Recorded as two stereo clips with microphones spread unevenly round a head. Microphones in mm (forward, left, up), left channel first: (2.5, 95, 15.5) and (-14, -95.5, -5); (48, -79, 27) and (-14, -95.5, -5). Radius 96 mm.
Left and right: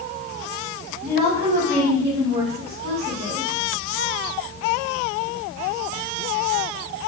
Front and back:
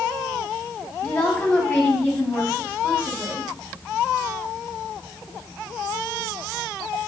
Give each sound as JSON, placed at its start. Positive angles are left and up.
{"t": 1.0, "sound": "a woman speaking", "azimuth_deg": -55, "distance_m": 4.5}